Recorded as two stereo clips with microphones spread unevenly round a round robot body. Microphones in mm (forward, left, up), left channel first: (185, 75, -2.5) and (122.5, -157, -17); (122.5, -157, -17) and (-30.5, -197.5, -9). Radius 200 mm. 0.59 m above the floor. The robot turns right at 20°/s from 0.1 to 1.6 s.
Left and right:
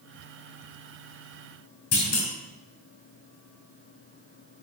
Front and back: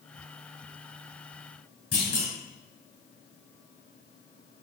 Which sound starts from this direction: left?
A clunk, at 1.9 s.